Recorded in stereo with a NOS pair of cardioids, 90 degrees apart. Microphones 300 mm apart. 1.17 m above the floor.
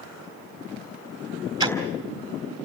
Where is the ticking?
10° right, 4.5 m.